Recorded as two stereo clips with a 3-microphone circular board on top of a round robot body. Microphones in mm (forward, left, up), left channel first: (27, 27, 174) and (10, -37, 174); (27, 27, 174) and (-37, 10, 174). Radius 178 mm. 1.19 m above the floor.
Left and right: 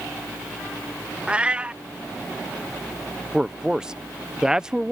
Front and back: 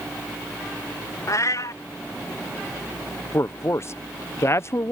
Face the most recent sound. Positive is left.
turn(degrees=-30)